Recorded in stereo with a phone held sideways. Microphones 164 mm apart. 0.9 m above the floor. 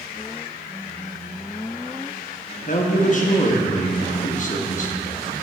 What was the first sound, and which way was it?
A man speaking, 50° left (ahead or behind).